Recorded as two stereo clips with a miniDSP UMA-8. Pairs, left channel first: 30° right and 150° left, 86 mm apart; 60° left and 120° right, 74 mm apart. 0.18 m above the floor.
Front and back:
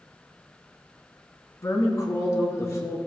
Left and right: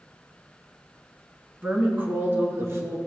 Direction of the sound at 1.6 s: 55° right.